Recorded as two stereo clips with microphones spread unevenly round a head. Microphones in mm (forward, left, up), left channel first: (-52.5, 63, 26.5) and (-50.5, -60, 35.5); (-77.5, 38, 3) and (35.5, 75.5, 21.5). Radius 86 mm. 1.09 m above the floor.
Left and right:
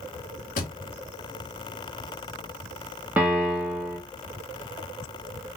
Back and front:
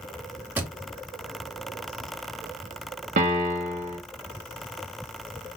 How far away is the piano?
About 0.6 m.